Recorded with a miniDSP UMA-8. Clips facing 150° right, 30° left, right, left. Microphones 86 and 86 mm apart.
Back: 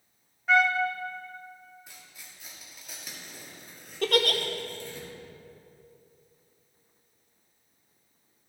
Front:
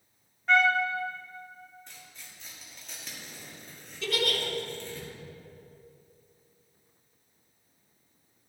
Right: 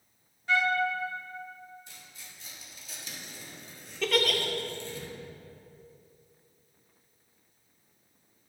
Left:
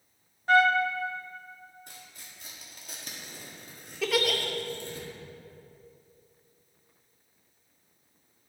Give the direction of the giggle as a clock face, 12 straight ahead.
6 o'clock.